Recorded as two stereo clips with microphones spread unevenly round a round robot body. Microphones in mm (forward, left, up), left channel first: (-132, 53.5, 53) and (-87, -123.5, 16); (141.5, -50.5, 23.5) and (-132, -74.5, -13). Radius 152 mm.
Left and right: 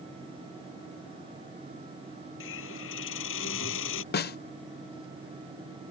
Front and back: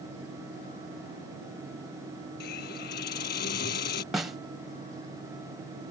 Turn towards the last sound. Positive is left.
turn(degrees=105)